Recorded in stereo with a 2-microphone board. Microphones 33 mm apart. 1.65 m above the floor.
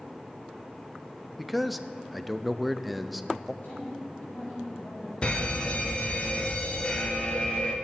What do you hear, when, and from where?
1.4 s a man speaking: centre (ahead or behind), 0.6 m
3.6 s a woman speaking: 75° left (ahead or behind), 6.5 m
5.2 s a fire alarm: 35° left (ahead or behind), 1.3 m